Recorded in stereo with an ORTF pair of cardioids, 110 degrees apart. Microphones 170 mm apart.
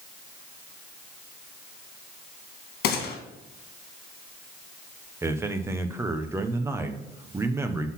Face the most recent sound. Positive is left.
turn(degrees=-15)